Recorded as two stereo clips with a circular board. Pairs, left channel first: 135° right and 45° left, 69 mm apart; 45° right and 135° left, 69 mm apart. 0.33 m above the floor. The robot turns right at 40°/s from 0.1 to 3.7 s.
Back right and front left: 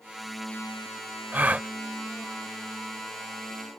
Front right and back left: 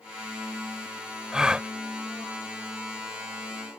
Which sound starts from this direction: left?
A gasp, at 1.3 s.